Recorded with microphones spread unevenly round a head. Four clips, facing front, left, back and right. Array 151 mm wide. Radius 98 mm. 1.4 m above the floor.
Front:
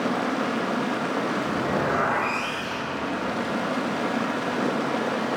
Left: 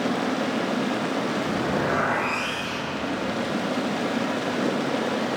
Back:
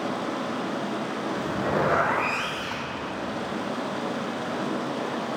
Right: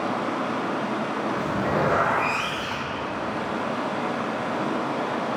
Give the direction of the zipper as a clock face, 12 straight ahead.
6 o'clock.